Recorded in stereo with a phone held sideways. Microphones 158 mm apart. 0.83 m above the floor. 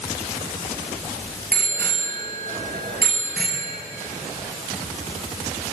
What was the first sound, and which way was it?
A bicycle bell, 85° right.